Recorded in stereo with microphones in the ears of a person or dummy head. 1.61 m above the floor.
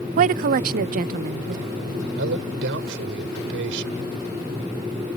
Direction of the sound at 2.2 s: 70° right (ahead or behind).